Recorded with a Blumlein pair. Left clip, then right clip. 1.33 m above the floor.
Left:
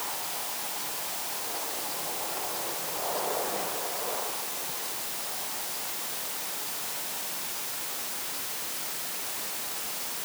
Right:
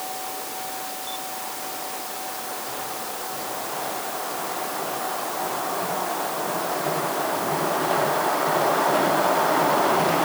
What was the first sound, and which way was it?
Only background noise.